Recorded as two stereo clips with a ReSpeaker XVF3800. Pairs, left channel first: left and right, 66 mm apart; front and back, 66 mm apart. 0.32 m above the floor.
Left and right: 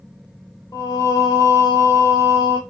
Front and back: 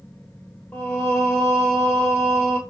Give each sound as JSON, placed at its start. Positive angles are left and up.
{"t": 0.7, "sound": "singing", "azimuth_deg": 70, "distance_m": 1.1}